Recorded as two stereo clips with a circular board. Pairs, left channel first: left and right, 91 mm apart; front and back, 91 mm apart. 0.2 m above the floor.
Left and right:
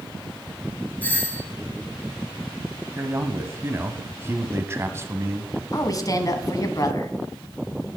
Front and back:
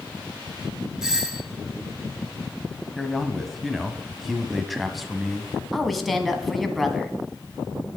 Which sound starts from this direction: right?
A man speaking, at 3.0 s.